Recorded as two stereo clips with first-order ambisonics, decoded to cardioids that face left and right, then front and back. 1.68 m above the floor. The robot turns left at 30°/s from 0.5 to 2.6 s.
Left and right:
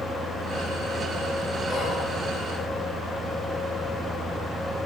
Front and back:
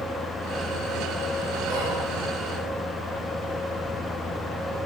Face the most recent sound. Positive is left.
turn(degrees=145)